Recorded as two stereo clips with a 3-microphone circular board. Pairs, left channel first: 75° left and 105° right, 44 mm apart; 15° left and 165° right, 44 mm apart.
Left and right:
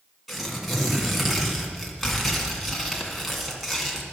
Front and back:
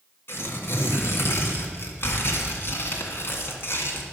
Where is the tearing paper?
15° right, 1.8 m.